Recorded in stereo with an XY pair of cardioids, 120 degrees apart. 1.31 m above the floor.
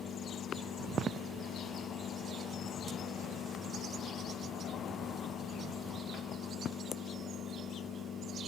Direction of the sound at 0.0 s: 45° left.